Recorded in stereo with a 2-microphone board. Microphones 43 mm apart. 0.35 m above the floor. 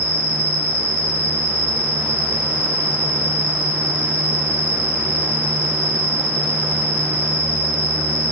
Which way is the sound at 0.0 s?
25° right (ahead or behind).